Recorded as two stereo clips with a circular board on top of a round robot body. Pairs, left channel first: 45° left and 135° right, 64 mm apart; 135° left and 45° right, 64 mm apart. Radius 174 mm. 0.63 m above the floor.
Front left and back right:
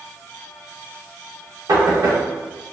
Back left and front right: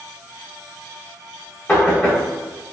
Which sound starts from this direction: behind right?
Knocking, at 1.7 s.